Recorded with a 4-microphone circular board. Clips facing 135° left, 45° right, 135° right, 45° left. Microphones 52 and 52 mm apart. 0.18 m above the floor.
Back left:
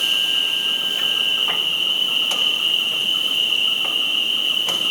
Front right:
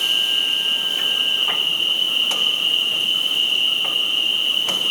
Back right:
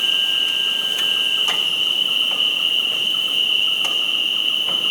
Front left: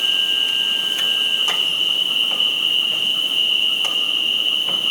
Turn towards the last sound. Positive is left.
turn(degrees=-170)